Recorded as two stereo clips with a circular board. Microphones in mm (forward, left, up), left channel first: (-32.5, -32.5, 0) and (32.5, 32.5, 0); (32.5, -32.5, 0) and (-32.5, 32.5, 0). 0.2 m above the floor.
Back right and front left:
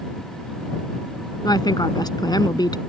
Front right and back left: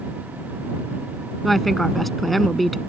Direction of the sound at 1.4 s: 135° right.